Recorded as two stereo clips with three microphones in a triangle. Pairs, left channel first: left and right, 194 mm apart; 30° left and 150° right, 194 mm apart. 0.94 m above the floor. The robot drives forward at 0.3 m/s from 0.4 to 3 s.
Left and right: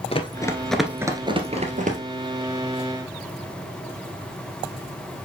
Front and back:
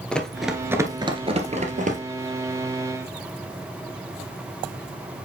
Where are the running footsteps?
110° left, 1.0 m; by 2.0 s 120° right, 1.4 m.